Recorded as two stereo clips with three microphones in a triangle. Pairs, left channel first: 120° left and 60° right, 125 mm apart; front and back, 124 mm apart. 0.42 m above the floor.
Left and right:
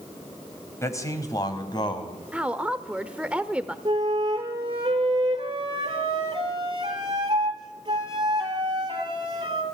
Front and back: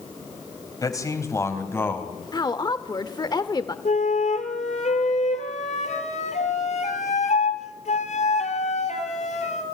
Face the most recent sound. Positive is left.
turn(degrees=-10)